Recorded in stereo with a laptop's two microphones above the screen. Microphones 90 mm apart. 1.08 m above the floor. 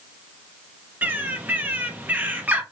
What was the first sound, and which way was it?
A bird, 20° right (ahead or behind).